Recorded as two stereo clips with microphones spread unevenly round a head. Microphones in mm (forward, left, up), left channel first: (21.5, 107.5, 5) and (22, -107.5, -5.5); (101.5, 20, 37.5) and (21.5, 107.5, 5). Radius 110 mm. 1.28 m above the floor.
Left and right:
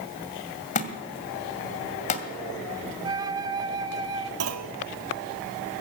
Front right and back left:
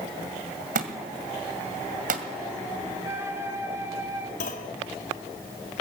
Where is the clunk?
75° right, 1.9 m.